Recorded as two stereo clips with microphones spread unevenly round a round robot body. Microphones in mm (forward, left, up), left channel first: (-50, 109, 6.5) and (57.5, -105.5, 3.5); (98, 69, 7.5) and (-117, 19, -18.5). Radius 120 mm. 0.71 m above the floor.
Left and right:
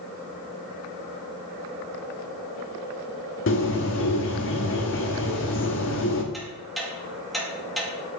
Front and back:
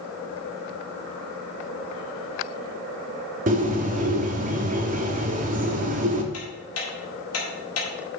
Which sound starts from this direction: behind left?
A bird, at 3.5 s.